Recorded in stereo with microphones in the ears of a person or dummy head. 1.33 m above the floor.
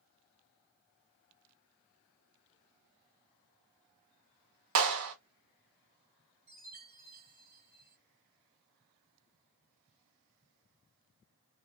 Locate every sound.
4.8 s a clap: 65° right (ahead or behind), 0.8 m
6.5 s a chime: 45° right (ahead or behind), 1.3 m